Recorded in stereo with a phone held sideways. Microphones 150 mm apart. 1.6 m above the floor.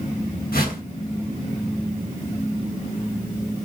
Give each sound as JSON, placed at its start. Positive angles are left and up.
{"t": 0.5, "sound": "a whoosh", "side_deg": 85, "distance_m": 0.8}